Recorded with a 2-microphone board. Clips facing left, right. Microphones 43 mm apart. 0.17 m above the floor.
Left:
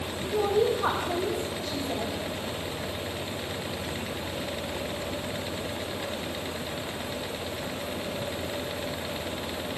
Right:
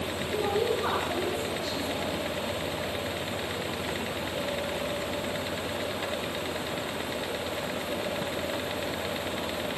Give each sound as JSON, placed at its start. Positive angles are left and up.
{"t": 0.2, "sound": "a woman speaking", "side_deg": 55, "distance_m": 8.0}